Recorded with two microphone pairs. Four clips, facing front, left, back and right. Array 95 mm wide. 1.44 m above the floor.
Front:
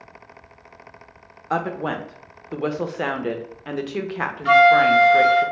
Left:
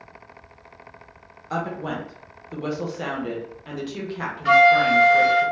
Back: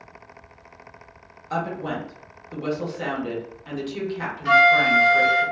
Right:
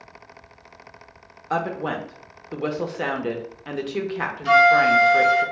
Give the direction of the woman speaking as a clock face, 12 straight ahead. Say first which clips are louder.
Right 3 dB, front 3 dB; 1 o'clock.